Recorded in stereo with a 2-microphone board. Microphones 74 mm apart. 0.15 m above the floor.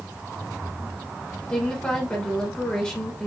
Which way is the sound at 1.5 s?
10° left (ahead or behind).